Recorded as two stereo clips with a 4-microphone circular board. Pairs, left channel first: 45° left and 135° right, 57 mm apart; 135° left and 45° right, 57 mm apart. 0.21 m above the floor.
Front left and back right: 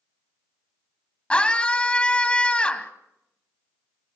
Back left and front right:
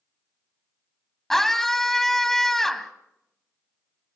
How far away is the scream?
About 1.2 m.